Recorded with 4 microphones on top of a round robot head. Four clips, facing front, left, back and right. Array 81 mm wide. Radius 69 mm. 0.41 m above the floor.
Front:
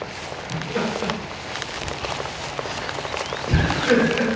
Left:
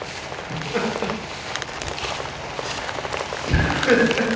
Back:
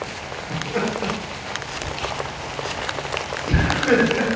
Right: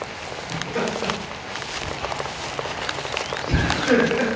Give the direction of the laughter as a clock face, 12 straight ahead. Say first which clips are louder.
Left 1 dB, back 1 dB; 8 o'clock.